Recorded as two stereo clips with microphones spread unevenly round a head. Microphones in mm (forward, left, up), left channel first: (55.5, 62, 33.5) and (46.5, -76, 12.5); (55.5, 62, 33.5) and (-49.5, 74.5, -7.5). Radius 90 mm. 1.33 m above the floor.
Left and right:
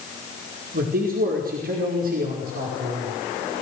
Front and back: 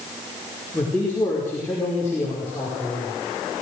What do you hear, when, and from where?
0.7 s a man speaking: 85° right, 5 m